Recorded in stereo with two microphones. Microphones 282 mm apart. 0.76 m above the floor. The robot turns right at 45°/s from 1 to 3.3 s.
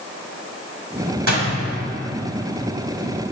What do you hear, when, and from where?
1.3 s a door slam: 85° right, 3.5 m; by 1.5 s 75° right (ahead or behind), 3.5 m